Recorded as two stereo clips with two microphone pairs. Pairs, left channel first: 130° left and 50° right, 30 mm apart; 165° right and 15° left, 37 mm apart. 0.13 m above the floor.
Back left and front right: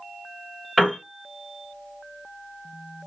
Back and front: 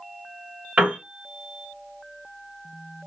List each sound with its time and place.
0.8 s a piano: 50° left, 1.5 m